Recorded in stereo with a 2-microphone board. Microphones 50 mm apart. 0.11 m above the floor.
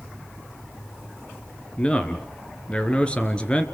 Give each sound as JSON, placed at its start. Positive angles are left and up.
{"t": 1.8, "sound": "a man speaking", "side_deg": 20, "distance_m": 2.0}